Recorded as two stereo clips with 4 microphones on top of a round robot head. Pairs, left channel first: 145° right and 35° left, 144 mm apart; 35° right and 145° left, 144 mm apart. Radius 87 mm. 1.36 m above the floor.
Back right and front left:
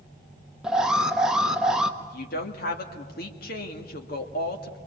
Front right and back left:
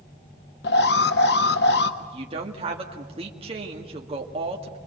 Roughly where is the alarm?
Ahead right.